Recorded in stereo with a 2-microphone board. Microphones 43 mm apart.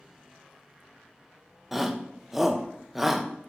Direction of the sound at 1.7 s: 5° right (ahead or behind).